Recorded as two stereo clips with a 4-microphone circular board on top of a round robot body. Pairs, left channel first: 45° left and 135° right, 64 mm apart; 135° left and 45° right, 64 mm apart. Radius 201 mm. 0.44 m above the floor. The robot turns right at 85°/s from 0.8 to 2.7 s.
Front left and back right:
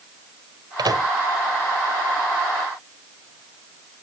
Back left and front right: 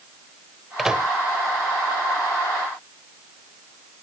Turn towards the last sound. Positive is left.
turn(degrees=30)